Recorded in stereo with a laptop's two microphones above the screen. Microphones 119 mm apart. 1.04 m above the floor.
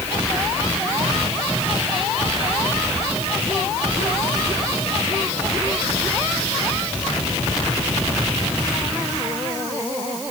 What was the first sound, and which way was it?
Only background noise.